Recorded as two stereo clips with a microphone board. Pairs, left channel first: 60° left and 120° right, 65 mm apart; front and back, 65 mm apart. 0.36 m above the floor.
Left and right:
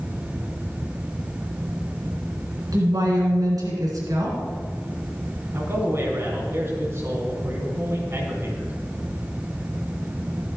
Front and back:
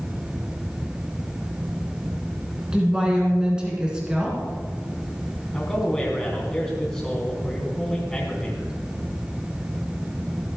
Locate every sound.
2.7 s a woman speaking: 100° right, 3.5 m
5.5 s a man speaking: 80° right, 4 m